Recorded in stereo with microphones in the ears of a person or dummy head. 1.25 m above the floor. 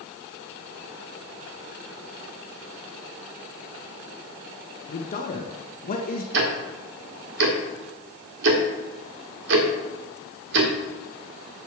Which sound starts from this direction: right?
Ticking, at 6.3 s.